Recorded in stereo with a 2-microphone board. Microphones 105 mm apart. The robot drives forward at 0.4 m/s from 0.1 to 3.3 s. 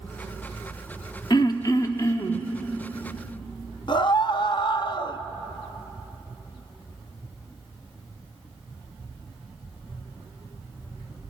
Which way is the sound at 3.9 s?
45° left (ahead or behind).